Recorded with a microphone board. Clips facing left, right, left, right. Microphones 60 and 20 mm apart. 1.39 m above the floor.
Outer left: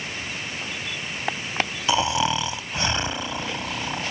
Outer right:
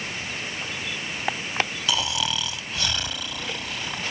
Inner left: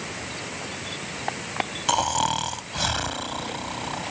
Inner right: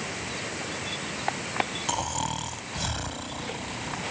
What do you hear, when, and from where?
1.9 s snoring: 30° left (ahead or behind)